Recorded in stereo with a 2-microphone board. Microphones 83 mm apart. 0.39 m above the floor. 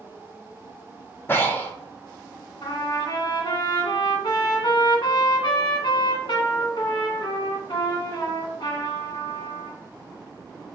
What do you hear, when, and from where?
1.3 s breathing: 30° left (ahead or behind), 0.9 m
2.6 s a trumpet: 75° left (ahead or behind), 1.3 m